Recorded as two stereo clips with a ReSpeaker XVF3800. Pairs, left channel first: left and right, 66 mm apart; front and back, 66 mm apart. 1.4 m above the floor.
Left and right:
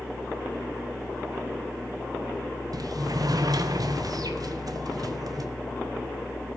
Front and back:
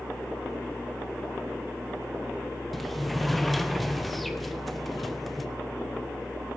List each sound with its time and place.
2.7 s a sliding door: 90° right, 1.0 m